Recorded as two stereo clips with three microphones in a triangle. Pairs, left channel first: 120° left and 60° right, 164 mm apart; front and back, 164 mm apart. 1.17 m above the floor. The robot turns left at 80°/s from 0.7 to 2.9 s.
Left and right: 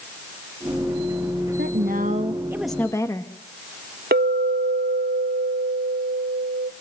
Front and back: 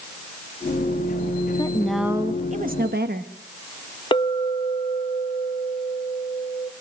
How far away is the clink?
About 0.7 m.